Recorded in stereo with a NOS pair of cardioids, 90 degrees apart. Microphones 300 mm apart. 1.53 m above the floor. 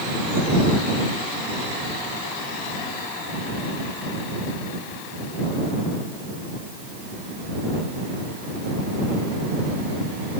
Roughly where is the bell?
No bell in this recording.